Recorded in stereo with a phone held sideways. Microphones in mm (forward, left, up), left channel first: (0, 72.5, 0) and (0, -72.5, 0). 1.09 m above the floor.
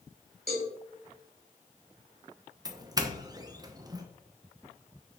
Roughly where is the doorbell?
Right.